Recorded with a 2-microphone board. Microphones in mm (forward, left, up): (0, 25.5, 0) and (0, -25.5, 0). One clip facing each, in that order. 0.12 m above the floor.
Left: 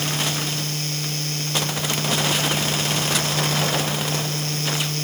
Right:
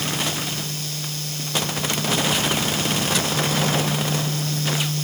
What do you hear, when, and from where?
Only background noise.